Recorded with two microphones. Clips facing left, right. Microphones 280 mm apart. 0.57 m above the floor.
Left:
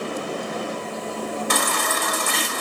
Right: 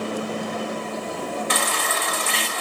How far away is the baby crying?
About 1.2 m.